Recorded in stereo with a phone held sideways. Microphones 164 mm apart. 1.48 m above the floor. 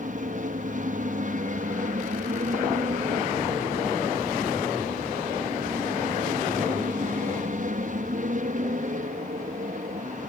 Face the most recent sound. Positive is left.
turn(degrees=-55)  # may be behind; listen again after turning